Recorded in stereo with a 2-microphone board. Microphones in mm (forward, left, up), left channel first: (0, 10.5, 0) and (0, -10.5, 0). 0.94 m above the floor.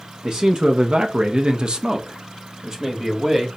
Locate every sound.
0.2 s a man speaking: 45° right (ahead or behind), 0.6 m; by 3.5 s 20° right (ahead or behind), 1.4 m